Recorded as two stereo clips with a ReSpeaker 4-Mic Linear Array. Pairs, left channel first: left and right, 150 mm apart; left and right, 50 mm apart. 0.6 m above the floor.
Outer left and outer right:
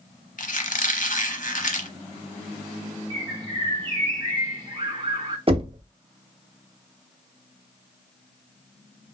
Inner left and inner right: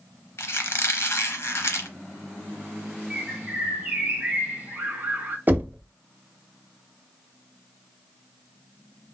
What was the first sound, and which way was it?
A squeak, 65° left (ahead or behind).